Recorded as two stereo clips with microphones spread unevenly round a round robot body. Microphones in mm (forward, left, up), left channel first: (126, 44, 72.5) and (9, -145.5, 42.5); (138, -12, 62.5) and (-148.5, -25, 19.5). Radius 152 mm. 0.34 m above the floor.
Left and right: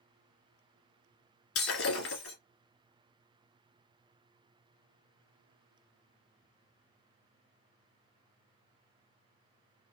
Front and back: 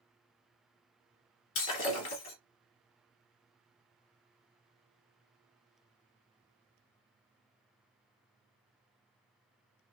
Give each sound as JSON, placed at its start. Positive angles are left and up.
{"t": 1.6, "sound": "breaking glass", "azimuth_deg": 35, "distance_m": 1.9}